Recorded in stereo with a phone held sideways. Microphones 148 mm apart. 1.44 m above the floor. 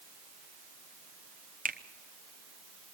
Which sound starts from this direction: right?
A finger snap, at 1.6 s.